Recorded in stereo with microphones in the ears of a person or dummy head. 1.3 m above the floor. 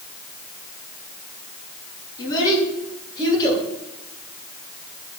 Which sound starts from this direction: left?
A child speaking, at 2.2 s.